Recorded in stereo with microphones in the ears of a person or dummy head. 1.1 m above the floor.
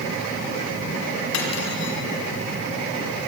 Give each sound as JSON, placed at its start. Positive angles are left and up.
{"t": 1.3, "sound": "cutlery clinking", "side_deg": 80, "distance_m": 4.5}